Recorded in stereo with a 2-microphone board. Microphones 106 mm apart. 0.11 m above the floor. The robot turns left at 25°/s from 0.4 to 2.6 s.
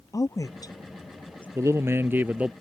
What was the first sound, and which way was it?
A woman speaking, 30° left (ahead or behind).